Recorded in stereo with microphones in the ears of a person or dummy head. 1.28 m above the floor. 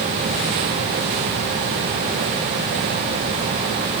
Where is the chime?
No chime in this recording.